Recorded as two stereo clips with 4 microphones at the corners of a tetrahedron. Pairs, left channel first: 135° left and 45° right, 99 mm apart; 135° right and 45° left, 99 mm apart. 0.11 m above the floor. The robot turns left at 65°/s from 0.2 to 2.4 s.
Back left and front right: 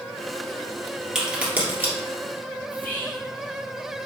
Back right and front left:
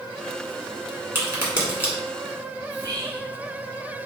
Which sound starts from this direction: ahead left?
A crack, at 1.1 s.